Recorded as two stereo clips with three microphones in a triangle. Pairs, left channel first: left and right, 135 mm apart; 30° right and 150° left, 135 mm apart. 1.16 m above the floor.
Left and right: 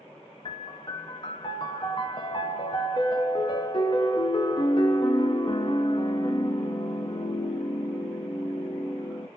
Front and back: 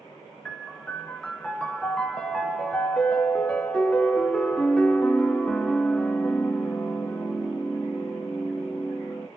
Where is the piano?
50° left, 0.6 m.